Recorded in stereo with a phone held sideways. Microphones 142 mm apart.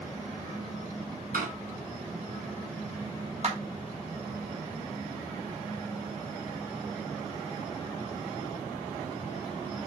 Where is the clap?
55° right (ahead or behind), 2.5 m.